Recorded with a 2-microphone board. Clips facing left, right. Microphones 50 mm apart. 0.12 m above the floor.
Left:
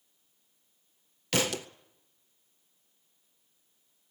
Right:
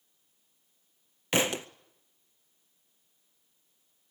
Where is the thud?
20° right (ahead or behind), 0.6 m.